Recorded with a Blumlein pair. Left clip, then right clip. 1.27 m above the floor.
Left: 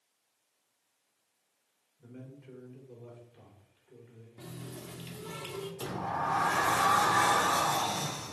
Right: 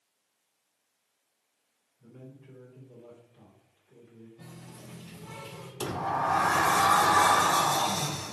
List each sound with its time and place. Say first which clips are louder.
2.0 s a man speaking: even; 70° left, 3.5 m
4.4 s a running tap: left 6 dB; 55° left, 2.0 m
5.8 s a sliding door: right 5 dB; 15° right, 0.6 m